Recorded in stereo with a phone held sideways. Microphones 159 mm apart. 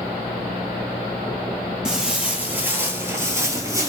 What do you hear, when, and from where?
1.9 s footsteps: 5° right (ahead or behind), 1.3 m; by 3.9 s 20° right (ahead or behind), 1.3 m